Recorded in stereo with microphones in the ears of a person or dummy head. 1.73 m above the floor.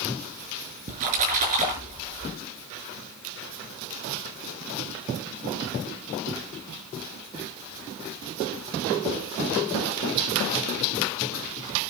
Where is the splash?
45° right (ahead or behind), 5.5 m.